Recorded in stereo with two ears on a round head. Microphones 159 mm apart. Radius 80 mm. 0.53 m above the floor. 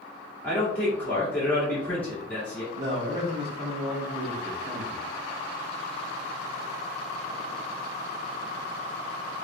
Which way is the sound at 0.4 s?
10° left (ahead or behind).